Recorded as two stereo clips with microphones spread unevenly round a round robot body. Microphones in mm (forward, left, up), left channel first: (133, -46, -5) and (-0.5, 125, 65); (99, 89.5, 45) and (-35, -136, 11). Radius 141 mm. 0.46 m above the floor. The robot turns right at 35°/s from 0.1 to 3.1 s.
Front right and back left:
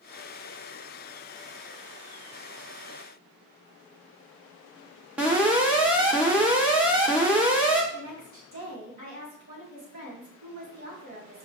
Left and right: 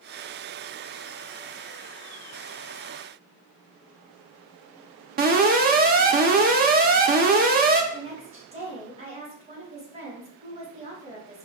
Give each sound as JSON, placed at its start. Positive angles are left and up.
{"t": 5.2, "sound": "an alarm", "azimuth_deg": -130, "distance_m": 0.6}
{"t": 7.9, "sound": "a woman speaking", "azimuth_deg": 175, "distance_m": 2.5}